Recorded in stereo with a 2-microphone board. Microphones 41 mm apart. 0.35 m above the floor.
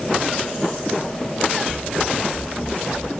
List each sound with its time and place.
1.7 s running footsteps: 10° left (ahead or behind); by 3.1 s 5° right (ahead or behind)